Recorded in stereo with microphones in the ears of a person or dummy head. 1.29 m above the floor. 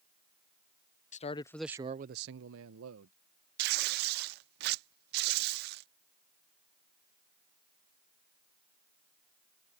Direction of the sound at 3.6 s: 55° right (ahead or behind).